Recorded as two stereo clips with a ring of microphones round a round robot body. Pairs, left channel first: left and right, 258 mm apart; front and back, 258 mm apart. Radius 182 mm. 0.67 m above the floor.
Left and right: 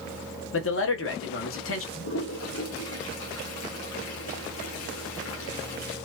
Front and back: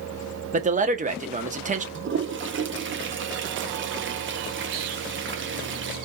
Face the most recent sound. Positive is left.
turn(degrees=135)